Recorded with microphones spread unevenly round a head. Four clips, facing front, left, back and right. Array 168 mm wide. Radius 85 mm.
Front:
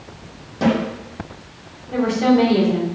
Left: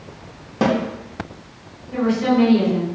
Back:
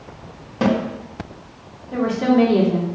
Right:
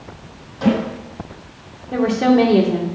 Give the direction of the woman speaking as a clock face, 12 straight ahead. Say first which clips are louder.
Right 3 dB, front 1 dB; 3 o'clock.